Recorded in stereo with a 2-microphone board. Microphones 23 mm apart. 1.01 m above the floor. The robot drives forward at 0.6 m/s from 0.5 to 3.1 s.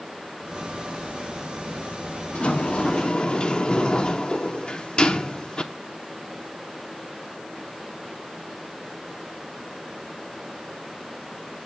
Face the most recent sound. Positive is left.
turn(degrees=40)  # may be behind; listen again after turning